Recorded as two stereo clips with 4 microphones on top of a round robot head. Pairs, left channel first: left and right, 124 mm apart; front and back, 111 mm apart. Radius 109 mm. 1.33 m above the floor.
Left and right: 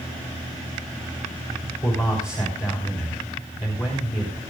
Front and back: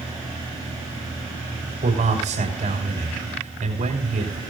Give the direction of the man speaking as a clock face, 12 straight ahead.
7 o'clock.